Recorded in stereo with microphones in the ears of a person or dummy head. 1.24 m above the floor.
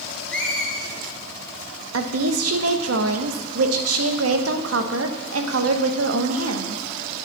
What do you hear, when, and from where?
0.3 s a squeak: 5° left (ahead or behind), 1.7 m
1.9 s a woman speaking: 85° right, 1.1 m